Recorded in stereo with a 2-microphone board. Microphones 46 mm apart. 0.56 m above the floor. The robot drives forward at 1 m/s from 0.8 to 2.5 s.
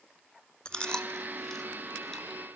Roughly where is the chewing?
Left.